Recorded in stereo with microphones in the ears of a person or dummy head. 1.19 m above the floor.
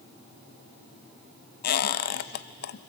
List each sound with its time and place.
1.6 s a squeak: 60° left (ahead or behind), 0.7 m